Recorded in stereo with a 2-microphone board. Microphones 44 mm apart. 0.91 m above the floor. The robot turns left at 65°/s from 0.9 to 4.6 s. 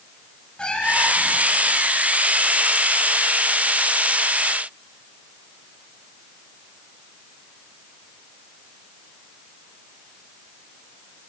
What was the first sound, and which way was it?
A cat meowing, 25° left.